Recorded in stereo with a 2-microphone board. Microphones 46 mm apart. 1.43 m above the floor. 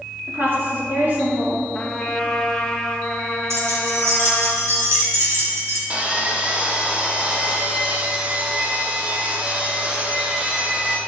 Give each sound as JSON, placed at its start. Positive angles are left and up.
{"t": 0.3, "sound": "a woman speaking", "side_deg": -50, "distance_m": 2.5}
{"t": 1.7, "sound": "a trumpet", "side_deg": 20, "distance_m": 1.1}
{"t": 3.5, "sound": "keys jangling", "side_deg": -80, "distance_m": 2.5}
{"t": 5.9, "sound": "sawing", "side_deg": -30, "distance_m": 1.3}